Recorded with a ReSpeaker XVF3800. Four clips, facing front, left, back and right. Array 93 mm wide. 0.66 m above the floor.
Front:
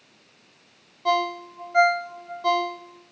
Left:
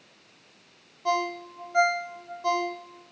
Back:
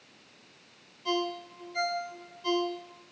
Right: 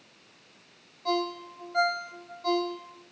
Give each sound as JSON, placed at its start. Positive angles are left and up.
{"t": 1.1, "sound": "a ringtone", "azimuth_deg": 15, "distance_m": 1.2}